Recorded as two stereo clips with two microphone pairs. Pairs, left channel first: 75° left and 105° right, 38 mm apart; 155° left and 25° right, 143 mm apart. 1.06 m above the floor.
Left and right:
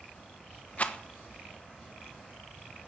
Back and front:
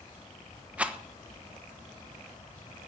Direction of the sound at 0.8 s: 50° left.